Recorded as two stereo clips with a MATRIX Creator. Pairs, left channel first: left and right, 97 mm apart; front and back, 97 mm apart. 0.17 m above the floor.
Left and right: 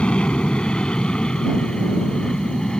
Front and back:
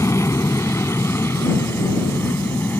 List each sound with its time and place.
0.0 s an aircraft: 20° left